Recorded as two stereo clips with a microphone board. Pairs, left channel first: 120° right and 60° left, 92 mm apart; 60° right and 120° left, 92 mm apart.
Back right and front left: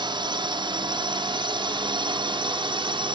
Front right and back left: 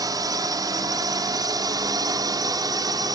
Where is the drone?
80° left.